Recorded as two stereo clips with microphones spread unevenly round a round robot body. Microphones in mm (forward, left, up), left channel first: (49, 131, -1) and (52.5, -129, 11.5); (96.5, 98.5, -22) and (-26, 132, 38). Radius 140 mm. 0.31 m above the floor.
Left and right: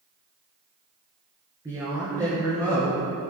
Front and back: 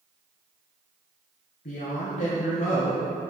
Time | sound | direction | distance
1.6 | a woman speaking | 15° right | 3.5 m